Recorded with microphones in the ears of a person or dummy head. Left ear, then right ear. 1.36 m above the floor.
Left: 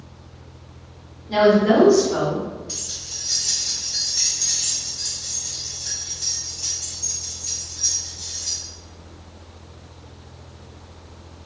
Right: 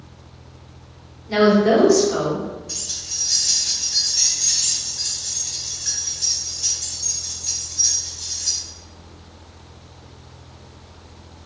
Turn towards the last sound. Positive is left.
turn(degrees=-25)  # may be behind; listen again after turning